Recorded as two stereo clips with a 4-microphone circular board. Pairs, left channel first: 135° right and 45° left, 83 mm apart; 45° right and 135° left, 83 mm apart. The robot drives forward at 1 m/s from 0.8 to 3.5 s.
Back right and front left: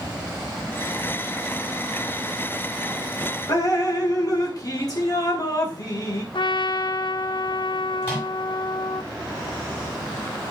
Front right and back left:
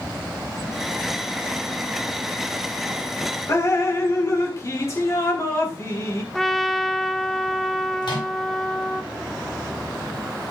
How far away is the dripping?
About 1.6 m.